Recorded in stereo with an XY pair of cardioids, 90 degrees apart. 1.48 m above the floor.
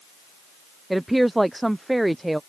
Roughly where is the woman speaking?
Ahead.